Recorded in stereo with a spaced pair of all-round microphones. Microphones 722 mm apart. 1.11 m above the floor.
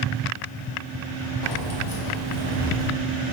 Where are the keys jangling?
50° left (ahead or behind), 2 m; by 2.9 s 5° right (ahead or behind), 1.6 m.